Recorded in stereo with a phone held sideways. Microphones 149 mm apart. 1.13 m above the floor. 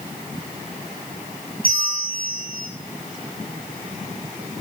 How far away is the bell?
About 6.5 m.